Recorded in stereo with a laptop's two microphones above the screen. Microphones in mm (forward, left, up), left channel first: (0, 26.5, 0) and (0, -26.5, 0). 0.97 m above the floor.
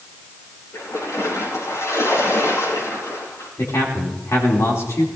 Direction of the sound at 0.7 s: 85° left.